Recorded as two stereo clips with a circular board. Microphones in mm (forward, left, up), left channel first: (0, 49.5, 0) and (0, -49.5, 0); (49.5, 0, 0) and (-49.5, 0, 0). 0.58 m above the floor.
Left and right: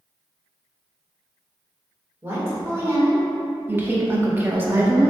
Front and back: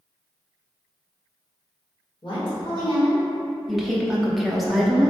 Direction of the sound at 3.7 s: 95° right.